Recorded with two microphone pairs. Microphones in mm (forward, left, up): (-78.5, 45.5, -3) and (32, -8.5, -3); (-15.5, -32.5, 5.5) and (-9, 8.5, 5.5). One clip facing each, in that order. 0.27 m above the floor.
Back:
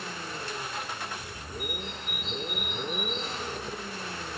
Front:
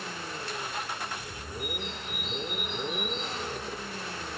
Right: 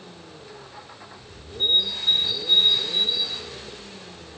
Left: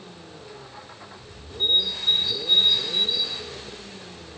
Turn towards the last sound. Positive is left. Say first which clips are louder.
# front 1 dB, right 1 dB
turn(degrees=-155)